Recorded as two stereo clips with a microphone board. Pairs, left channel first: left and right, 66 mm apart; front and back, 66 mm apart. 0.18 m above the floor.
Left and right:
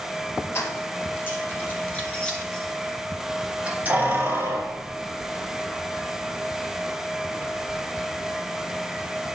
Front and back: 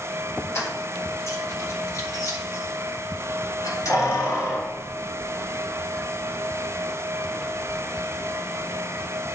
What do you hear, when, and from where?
0.6 s keys jangling: 45° left, 2.5 m; by 7.8 s 75° right, 4 m